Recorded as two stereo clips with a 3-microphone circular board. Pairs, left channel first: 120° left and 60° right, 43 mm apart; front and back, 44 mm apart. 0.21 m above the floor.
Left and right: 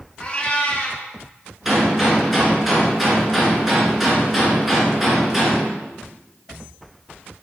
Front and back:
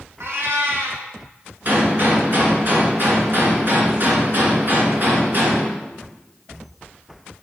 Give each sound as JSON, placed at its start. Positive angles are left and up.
{"t": 0.2, "sound": "a cat meowing", "azimuth_deg": 180, "distance_m": 1.4}
{"t": 1.6, "sound": "a gunshot", "azimuth_deg": -145, "distance_m": 2.0}